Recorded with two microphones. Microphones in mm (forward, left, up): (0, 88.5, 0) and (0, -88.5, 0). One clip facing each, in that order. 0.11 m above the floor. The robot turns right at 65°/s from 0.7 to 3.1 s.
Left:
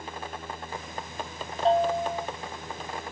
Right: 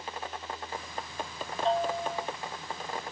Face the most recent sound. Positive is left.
turn(degrees=-135)